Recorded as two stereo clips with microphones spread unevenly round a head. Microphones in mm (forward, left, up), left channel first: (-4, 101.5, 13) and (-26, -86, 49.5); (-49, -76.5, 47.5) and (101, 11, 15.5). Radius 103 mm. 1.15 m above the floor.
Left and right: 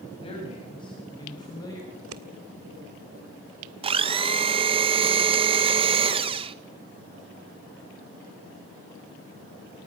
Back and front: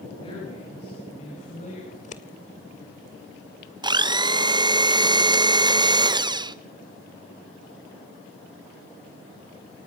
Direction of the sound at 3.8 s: 30° right.